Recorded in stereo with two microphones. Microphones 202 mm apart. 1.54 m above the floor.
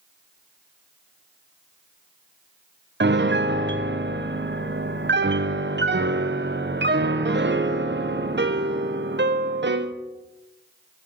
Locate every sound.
3.0 s a piano: 60° right (ahead or behind), 0.7 m